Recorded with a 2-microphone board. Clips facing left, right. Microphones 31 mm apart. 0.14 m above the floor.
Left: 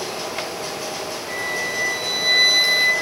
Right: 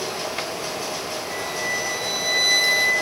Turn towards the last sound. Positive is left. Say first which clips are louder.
# left 2 dB
turn(degrees=30)  # may be behind; listen again after turning